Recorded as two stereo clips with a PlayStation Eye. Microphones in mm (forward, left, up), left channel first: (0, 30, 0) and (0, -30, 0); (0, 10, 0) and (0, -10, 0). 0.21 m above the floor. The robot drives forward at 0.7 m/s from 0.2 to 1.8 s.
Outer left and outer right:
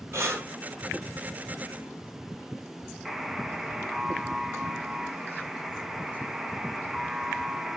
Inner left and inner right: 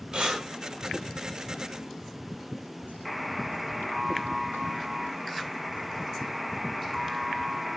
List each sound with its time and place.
0.1 s breathing: 50° right (ahead or behind), 4.5 m; by 0.5 s 45° right (ahead or behind), 5 m
3.0 s a buzzer: 5° right (ahead or behind), 1.3 m